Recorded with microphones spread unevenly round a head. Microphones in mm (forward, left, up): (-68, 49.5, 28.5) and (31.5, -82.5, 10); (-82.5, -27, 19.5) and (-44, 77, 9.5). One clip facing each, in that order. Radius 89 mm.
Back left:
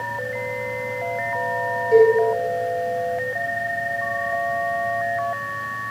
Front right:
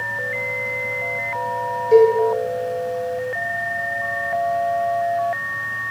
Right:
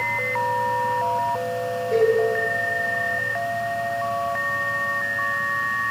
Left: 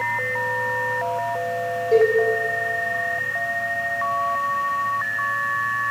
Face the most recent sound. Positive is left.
turn(degrees=-5)